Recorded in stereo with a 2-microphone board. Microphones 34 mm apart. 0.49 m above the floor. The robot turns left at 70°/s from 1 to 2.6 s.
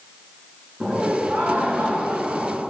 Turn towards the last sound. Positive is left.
turn(degrees=-140)